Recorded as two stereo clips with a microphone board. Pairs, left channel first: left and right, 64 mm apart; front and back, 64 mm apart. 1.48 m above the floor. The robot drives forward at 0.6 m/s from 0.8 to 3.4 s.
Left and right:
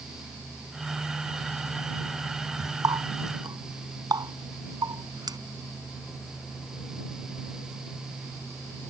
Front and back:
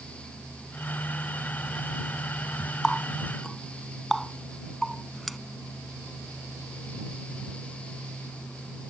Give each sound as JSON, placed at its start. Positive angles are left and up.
{"t": 2.8, "sound": "a running tap", "azimuth_deg": -85}